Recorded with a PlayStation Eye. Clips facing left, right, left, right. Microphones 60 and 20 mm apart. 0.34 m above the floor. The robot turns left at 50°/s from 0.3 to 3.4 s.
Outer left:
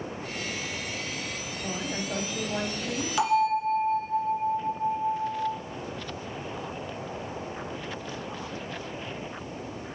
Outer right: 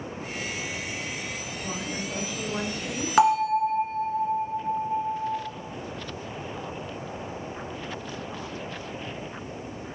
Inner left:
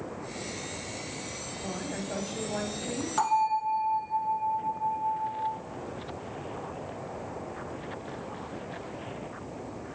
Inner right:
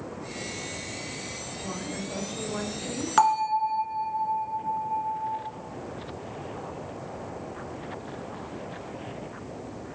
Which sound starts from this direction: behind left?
A woman speaking, at 1.6 s.